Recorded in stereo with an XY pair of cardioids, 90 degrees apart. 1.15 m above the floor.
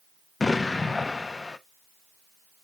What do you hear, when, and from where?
0.4 s an explosion: 25° left, 0.8 m